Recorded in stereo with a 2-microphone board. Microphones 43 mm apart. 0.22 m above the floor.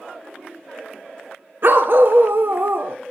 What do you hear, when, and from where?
1.6 s a dog barking: 55° right (ahead or behind), 1.1 m